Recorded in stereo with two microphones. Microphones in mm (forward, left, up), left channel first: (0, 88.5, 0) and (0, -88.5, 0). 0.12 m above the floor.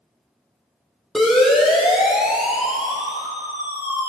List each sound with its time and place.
1.1 s a siren: centre (ahead or behind), 4.5 m; by 4.1 s 15° right (ahead or behind), 3 m